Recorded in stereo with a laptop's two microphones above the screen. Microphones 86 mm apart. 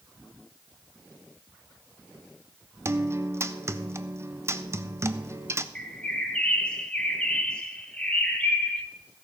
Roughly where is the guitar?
Right.